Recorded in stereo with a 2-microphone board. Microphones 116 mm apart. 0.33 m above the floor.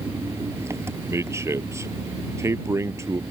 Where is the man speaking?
25° right (ahead or behind).